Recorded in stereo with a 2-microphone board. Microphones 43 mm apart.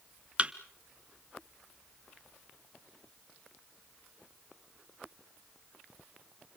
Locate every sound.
0.4 s a thud: 30° right (ahead or behind), 0.9 m